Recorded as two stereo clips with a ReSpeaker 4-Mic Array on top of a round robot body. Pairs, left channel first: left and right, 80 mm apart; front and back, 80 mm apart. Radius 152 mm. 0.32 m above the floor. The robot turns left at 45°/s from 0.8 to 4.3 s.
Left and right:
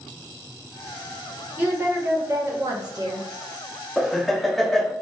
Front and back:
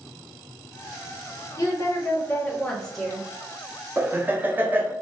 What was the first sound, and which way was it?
A woman speaking, 25° right.